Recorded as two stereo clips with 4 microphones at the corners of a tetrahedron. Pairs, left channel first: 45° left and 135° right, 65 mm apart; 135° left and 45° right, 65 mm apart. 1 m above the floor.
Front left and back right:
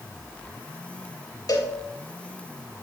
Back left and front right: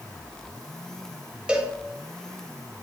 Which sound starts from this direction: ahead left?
A cowbell, at 1.5 s.